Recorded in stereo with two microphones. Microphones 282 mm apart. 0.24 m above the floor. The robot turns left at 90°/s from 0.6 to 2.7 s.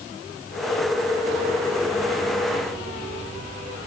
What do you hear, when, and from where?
Only background noise.